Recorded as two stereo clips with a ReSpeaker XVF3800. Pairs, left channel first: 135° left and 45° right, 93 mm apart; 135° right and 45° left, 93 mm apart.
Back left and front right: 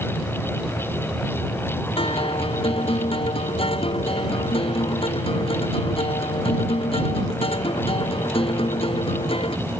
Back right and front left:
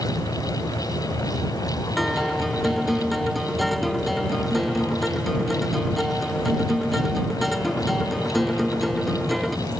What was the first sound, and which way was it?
A guitar, 135° left.